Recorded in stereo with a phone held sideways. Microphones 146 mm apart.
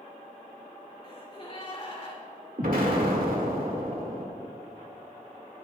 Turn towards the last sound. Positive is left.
turn(degrees=-70)  # may be behind; listen again after turning